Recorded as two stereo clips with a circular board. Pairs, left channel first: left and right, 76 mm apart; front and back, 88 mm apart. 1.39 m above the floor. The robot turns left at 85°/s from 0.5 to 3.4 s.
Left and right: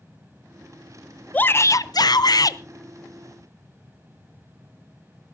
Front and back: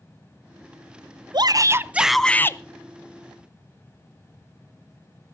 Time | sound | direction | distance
1.3 | a shout | 160° left | 0.6 m